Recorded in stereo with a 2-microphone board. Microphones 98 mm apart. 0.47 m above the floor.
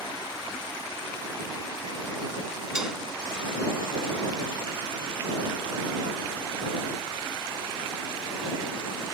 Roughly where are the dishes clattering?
Centre.